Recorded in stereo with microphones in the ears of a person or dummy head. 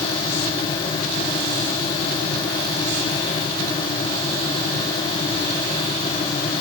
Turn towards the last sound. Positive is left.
No sound to turn to.